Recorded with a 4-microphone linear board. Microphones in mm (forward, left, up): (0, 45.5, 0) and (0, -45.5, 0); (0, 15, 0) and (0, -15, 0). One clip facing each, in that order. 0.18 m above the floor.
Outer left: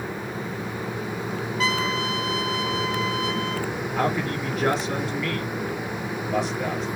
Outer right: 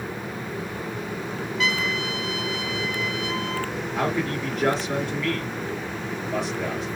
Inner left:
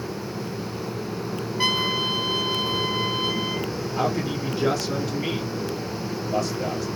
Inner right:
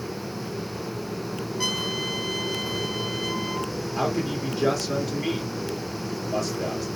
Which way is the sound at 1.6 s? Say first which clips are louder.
Outer left 2 dB, inner left 6 dB; 40° left (ahead or behind).